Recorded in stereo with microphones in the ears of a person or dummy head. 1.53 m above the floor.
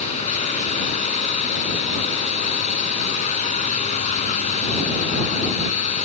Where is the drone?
35° left (ahead or behind).